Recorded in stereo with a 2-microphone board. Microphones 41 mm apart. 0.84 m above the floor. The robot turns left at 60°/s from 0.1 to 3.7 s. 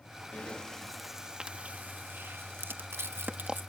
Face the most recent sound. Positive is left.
turn(degrees=-50)  # may be behind; listen again after turning